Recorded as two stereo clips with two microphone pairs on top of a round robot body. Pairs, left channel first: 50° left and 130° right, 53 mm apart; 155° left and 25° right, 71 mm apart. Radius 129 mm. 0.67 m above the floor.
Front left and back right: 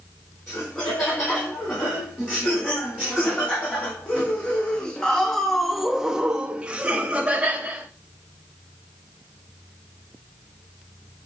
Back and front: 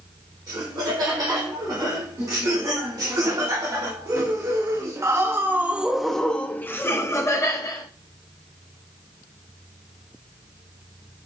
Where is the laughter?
10° right, 3 m; by 7.9 s 175° left, 1.3 m.